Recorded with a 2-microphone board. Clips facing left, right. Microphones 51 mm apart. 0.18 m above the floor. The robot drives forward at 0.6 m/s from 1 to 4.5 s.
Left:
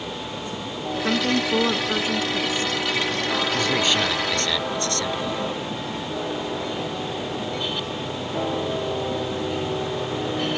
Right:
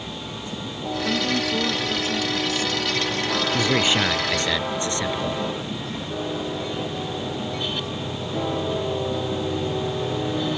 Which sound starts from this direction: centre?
A man speaking, at 3.5 s.